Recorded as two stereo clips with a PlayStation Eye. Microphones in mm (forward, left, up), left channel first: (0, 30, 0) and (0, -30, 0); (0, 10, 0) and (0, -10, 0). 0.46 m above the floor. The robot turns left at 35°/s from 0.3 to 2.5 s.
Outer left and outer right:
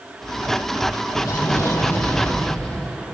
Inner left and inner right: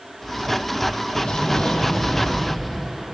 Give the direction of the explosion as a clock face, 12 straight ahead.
10 o'clock.